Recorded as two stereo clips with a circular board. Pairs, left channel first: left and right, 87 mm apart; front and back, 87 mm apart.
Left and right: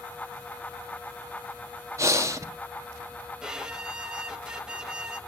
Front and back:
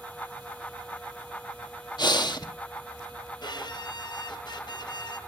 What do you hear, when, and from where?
2.0 s breathing: 35° right, 1.2 m
3.4 s a violin: 10° right, 1.1 m